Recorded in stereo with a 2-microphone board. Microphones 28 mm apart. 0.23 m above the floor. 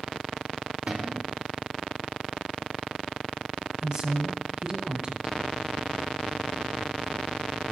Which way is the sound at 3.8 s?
25° right (ahead or behind).